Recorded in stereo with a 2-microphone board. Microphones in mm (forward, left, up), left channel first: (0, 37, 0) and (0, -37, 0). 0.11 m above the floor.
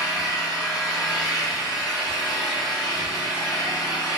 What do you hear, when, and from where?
0.0 s an engine running: 70° left (ahead or behind), 1.3 m